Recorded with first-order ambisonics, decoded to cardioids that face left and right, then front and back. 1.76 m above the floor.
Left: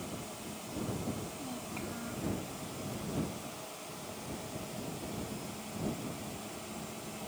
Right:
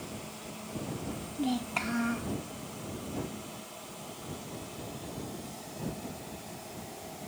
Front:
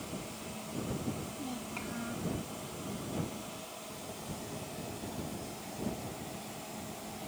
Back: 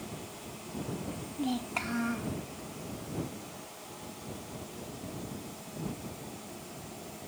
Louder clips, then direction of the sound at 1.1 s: Right 7 dB, back 5 dB; 125° right.